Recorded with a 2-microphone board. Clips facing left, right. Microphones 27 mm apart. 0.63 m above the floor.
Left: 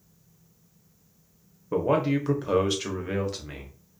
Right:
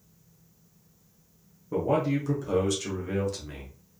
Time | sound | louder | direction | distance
1.7 | a man speaking | left 2 dB | 40° left (ahead or behind) | 0.8 m